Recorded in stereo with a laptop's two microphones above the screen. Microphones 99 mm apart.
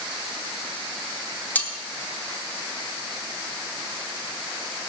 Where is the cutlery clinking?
15° left (ahead or behind), 3 m.